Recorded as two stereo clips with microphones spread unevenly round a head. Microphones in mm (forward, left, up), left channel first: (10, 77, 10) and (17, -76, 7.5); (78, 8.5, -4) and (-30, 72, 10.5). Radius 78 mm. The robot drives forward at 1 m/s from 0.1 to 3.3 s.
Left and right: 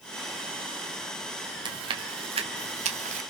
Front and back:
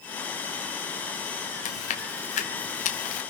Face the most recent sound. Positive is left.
turn(degrees=-60)